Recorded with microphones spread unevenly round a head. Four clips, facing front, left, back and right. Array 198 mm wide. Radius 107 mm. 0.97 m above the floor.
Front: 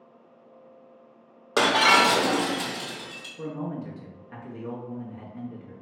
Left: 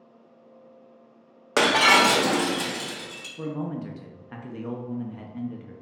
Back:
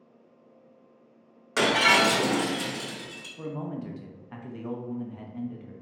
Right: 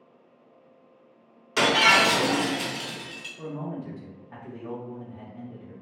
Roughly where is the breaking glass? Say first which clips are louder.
Left 2 dB, front 3 dB; ahead left.